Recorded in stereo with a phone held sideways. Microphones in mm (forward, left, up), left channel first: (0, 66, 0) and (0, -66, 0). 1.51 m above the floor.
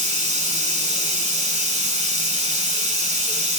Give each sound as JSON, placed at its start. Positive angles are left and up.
{"t": 0.0, "sound": "running water", "side_deg": -65, "distance_m": 2.5}